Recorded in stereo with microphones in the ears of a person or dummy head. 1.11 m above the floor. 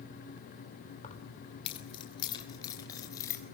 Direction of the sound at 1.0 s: 35° left (ahead or behind).